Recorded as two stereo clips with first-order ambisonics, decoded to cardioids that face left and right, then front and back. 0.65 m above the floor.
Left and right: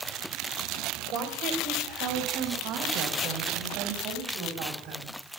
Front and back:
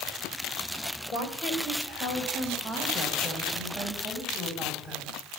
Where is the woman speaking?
55° right, 3 m; by 5.2 s 100° right, 4.5 m.